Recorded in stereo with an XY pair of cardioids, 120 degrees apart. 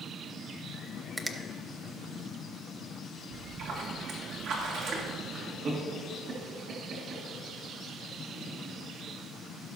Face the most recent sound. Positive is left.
turn(degrees=-45)